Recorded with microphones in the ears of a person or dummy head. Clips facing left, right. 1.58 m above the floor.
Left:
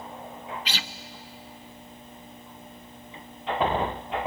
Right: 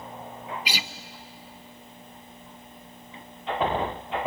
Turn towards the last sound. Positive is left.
turn(degrees=-15)  # may be behind; listen again after turning